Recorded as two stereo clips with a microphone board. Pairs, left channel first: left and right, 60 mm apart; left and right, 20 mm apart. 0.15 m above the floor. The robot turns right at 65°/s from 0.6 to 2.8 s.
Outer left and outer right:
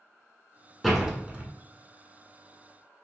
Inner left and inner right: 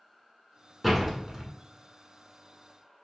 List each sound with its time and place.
0.8 s a door slam: centre (ahead or behind), 0.9 m; by 1.5 s 25° right (ahead or behind), 0.9 m